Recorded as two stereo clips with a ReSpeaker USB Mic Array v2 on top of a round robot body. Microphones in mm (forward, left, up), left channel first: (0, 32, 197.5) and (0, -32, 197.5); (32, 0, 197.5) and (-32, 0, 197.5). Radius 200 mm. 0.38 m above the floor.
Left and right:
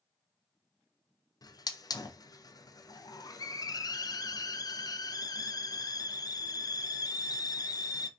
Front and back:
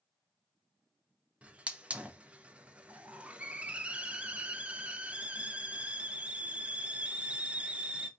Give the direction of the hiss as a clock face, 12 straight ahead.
8 o'clock.